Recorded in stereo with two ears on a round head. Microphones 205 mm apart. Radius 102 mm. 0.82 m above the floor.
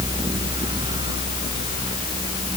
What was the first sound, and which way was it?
Only background noise.